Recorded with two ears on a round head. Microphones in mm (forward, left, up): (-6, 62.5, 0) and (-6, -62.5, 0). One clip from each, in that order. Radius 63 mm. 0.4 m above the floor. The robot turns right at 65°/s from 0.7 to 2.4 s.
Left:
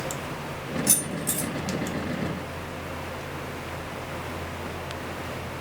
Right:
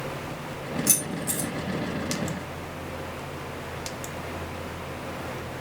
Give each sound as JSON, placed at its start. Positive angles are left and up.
{"t": 0.9, "sound": "keys jangling", "side_deg": -10, "distance_m": 5.5}